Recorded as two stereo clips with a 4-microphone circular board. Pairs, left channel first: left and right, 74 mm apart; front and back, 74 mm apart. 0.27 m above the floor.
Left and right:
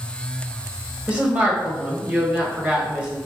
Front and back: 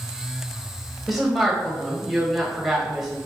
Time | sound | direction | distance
1.1 | a woman speaking | 95° right | 1.1 m